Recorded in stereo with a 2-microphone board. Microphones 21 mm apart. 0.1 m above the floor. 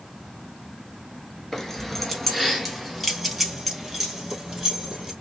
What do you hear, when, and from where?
1.5 s keys jangling: 15° left (ahead or behind), 1.3 m; by 5.1 s 15° right (ahead or behind), 3 m